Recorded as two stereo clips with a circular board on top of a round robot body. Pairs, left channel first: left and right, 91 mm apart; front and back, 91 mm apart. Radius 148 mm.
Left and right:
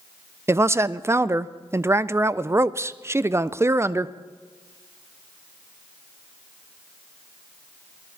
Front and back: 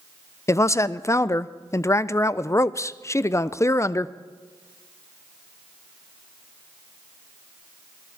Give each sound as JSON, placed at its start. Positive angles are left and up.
{"t": 0.5, "sound": "a woman speaking", "azimuth_deg": -40, "distance_m": 0.6}